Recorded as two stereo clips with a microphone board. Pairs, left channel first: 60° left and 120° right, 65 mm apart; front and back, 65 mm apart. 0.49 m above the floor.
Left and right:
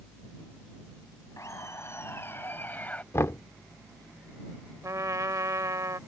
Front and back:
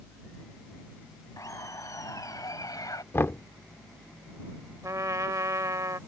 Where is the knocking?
35° left.